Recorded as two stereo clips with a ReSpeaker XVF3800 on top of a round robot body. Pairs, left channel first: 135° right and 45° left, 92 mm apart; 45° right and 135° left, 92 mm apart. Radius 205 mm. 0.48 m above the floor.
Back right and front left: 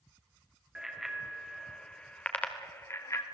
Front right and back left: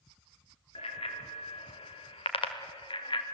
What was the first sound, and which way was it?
A bicycle bell, 40° right.